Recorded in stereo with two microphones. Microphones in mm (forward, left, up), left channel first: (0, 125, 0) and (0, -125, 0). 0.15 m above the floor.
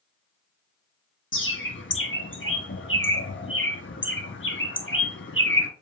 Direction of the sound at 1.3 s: 50° left (ahead or behind).